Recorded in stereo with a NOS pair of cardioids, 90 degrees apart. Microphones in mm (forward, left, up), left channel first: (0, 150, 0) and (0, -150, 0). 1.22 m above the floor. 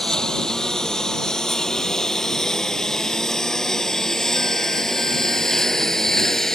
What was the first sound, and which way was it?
A lawn mower, straight ahead.